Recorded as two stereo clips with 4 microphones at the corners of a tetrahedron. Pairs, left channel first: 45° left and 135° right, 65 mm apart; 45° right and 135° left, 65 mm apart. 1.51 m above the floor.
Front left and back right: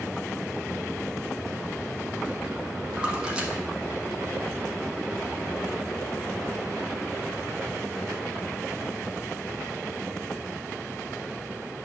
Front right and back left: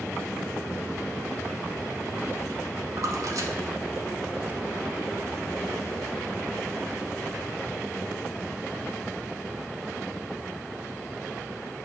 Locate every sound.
3.0 s a splash: 150° left, 1.3 m